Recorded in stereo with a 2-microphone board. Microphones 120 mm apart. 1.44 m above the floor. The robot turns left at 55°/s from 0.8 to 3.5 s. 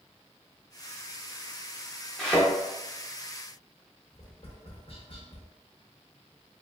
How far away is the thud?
About 0.9 m.